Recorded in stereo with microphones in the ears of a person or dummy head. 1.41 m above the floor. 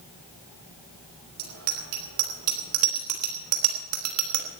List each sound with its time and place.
1.4 s a bicycle bell: 60° right (ahead or behind), 4.5 m; by 4.5 s 75° right (ahead or behind), 3 m